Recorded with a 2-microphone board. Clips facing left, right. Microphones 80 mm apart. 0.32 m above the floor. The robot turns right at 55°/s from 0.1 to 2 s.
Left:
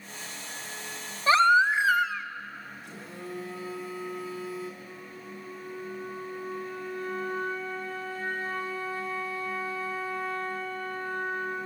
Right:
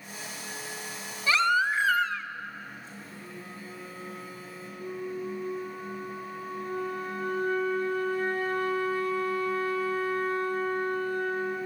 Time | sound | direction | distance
1.3 | a baby crying | 130° left | 1.2 m
2.8 | a phone buzzing | 60° left (ahead or behind) | 7.5 m
4.8 | a flute | 55° right (ahead or behind) | 5.5 m